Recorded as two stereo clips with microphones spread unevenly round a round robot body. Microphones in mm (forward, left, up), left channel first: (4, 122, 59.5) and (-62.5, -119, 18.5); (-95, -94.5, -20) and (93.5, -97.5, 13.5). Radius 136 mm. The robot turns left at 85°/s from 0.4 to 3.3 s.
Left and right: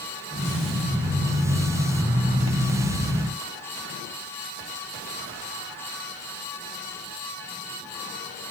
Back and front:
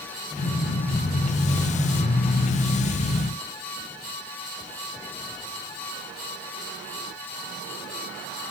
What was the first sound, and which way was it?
Only background noise.